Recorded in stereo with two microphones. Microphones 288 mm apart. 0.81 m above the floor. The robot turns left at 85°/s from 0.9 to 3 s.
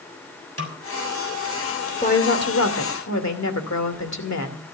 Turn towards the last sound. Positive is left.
turn(degrees=70)